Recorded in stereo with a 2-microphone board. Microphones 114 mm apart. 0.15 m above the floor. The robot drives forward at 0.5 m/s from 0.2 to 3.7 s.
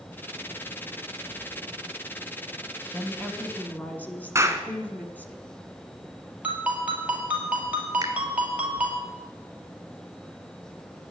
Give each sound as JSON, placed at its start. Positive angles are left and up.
{"t": 2.9, "sound": "a woman speaking", "side_deg": 15, "distance_m": 1.0}
{"t": 4.3, "sound": "a clap", "side_deg": -25, "distance_m": 1.2}
{"t": 6.4, "sound": "a ringtone", "side_deg": -10, "distance_m": 2.0}
{"t": 8.0, "sound": "a finger snap", "side_deg": -35, "distance_m": 1.2}